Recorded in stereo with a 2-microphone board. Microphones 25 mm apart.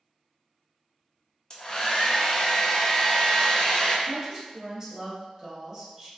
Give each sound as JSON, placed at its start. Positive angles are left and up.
{"t": 1.5, "sound": "a hair dryer", "side_deg": 30, "distance_m": 0.7}
{"t": 4.1, "sound": "a woman speaking", "side_deg": -25, "distance_m": 1.3}